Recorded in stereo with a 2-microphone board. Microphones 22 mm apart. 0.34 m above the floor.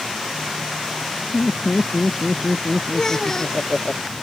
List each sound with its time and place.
1.3 s laughter: 80° left; by 3.9 s 75° left (ahead or behind)
2.9 s a child speaking: 20° left (ahead or behind)